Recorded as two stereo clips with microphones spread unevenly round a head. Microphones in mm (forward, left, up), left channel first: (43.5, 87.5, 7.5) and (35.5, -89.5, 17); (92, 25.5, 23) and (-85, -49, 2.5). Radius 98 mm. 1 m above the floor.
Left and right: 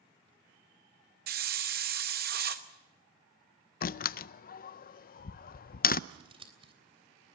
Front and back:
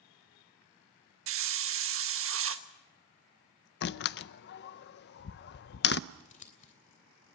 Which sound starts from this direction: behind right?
A hiss, at 1.3 s.